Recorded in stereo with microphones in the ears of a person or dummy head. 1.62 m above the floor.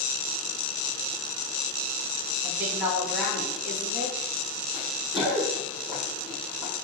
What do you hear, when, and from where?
2.4 s a woman speaking: 10° right (ahead or behind), 2 m
4.7 s running footsteps: 10° right (ahead or behind), 3 m; by 6.7 s 5° left (ahead or behind), 4 m